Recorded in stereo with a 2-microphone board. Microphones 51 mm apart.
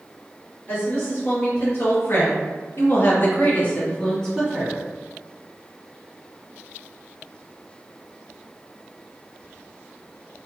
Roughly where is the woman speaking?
Left.